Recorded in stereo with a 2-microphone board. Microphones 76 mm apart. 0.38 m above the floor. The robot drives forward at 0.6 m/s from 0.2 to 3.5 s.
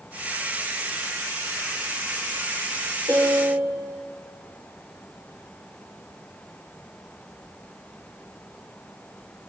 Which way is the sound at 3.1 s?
90° right.